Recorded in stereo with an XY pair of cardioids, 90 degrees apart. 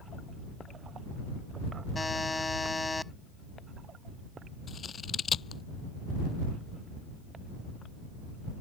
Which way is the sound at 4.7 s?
50° left.